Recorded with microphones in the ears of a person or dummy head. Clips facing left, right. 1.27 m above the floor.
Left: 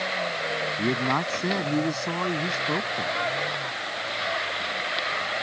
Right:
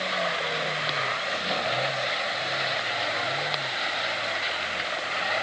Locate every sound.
0.8 s a man speaking: 80° left